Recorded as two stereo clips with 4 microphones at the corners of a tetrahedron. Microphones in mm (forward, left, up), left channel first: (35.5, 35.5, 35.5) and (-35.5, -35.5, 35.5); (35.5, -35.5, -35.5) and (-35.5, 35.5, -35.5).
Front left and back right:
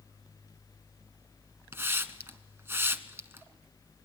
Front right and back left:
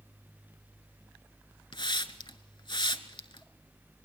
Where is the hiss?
70° right, 0.9 m.